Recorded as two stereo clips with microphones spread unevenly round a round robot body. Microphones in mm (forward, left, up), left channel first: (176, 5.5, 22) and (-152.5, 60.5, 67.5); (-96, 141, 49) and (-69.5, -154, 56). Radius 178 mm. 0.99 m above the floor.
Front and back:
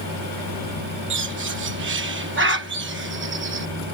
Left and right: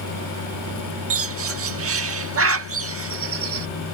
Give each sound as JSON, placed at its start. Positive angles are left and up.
{"t": 1.1, "sound": "a bird", "azimuth_deg": -130}